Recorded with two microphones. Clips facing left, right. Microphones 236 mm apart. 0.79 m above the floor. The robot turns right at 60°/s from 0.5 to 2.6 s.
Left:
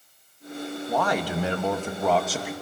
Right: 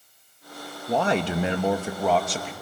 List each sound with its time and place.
0.9 s a man speaking: 30° right (ahead or behind), 1.1 m; by 2.5 s 10° left (ahead or behind), 1.1 m